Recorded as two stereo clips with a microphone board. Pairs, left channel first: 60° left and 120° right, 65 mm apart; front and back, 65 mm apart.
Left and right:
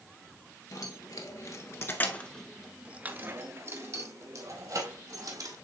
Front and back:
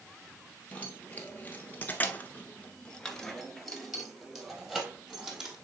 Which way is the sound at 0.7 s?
65° left.